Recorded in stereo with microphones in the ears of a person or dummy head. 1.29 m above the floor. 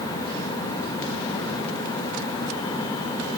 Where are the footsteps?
I don't hear footsteps.